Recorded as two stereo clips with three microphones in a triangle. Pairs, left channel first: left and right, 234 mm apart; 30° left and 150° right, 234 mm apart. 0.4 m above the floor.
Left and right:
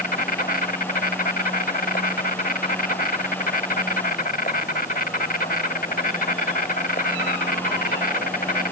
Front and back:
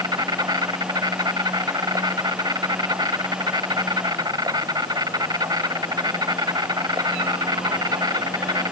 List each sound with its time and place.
0.0 s an insect: 140° left